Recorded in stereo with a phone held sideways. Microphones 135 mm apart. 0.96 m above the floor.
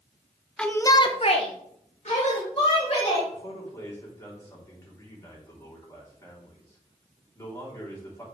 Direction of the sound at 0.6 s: 5° left (ahead or behind).